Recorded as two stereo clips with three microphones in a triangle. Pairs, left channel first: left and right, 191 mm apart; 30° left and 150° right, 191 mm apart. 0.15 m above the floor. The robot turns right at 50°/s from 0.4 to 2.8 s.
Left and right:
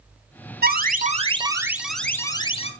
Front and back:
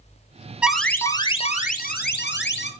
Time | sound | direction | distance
0.6 | an alarm | 65° right | 1.9 m